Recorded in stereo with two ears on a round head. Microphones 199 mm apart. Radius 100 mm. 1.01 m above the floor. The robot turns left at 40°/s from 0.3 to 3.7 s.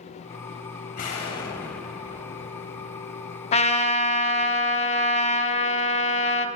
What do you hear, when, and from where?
0.9 s an explosion: 35° left, 1.7 m; by 3.4 s 60° right, 1.7 m
3.5 s a trumpet: 25° left (ahead or behind), 0.6 m; by 6.5 s 30° left (ahead or behind), 0.6 m